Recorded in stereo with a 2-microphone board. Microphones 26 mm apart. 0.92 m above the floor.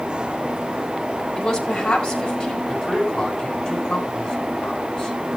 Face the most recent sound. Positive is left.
turn(degrees=30)  # may be behind; listen again after turning